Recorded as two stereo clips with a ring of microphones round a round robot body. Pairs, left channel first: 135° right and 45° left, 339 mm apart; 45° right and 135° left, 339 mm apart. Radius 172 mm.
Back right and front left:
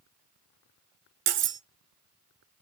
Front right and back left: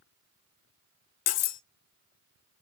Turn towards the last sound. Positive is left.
turn(degrees=-5)